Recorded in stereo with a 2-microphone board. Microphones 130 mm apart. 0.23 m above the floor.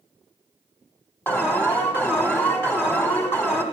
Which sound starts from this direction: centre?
An alarm, at 1.3 s.